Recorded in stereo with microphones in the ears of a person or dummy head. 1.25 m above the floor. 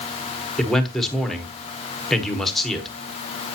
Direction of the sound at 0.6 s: Centre (ahead or behind).